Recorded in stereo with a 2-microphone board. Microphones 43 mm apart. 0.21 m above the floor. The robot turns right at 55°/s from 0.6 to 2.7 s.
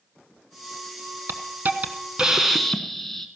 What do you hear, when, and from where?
1.3 s a hiss: 70° right, 1.2 m; by 3.3 s 5° left, 1.2 m